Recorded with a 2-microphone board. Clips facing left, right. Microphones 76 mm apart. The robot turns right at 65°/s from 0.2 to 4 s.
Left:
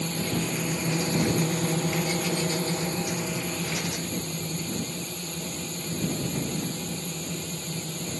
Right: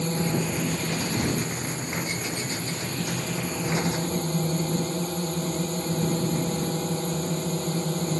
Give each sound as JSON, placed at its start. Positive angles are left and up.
{"t": 0.0, "sound": "a drone", "azimuth_deg": -30}